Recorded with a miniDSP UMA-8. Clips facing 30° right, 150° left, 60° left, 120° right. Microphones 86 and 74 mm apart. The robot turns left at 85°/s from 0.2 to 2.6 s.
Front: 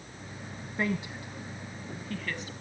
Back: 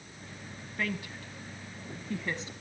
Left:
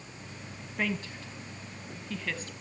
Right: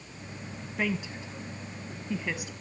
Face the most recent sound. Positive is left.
turn(degrees=165)